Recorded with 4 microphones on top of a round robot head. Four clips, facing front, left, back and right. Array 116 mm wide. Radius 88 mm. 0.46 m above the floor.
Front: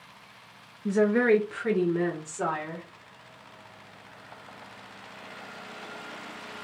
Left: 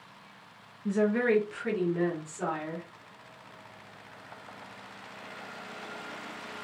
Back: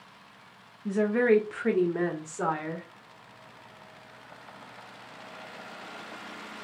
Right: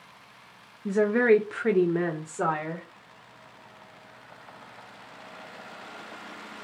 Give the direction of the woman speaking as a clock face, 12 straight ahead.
2 o'clock.